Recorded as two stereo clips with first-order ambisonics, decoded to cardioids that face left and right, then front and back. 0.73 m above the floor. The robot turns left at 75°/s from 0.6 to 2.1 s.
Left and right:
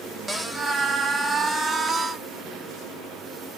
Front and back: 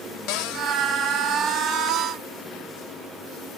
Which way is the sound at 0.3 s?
Straight ahead.